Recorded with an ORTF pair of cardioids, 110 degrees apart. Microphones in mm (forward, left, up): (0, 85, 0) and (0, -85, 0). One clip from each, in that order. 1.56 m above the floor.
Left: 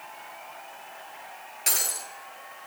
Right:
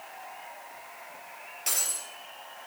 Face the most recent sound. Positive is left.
turn(degrees=35)